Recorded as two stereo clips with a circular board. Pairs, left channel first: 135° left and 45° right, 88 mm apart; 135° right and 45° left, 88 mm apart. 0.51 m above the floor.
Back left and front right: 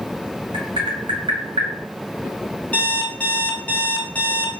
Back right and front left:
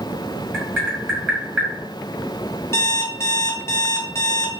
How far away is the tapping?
About 1.3 m.